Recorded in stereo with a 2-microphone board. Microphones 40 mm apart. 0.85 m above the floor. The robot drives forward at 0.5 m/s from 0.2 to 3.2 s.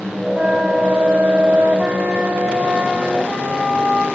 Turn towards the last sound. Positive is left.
turn(degrees=-20)  # may be behind; listen again after turning